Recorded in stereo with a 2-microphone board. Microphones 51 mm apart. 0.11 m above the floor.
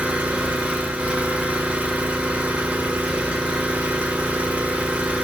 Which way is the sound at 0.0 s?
25° right (ahead or behind).